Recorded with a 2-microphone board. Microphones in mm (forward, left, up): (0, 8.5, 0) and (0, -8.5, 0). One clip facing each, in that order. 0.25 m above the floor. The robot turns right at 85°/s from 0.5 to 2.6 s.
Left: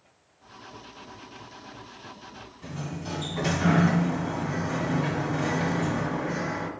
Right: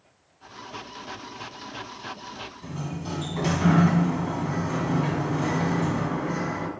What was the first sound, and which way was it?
A sliding door, 10° right (ahead or behind).